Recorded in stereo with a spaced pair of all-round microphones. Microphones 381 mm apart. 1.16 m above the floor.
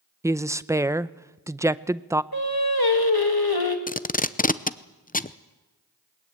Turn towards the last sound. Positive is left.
turn(degrees=20)  # may be behind; listen again after turning